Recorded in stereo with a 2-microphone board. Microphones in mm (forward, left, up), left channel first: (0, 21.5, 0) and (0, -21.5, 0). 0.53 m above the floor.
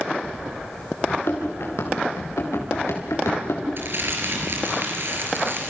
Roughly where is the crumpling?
Right.